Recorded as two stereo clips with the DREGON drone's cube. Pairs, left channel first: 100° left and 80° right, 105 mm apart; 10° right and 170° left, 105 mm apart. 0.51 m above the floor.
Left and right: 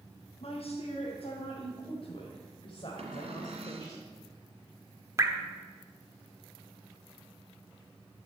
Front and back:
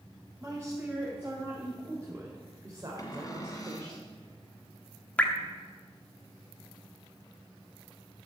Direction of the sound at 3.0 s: 65° right.